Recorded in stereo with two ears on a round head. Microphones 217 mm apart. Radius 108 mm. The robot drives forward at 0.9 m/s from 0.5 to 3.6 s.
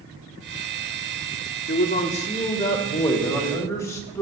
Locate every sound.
1.7 s a man speaking: 40° left (ahead or behind), 0.8 m; by 4.2 s 15° left (ahead or behind), 2.5 m